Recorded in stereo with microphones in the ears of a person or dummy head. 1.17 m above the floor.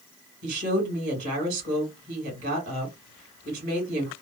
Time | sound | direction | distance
0.4 | a woman speaking | 60° right (ahead or behind) | 1.6 m